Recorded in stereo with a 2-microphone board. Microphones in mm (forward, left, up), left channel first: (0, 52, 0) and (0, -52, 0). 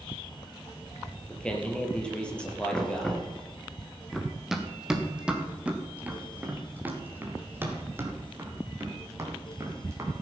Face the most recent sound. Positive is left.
turn(degrees=-30)  # may be behind; listen again after turning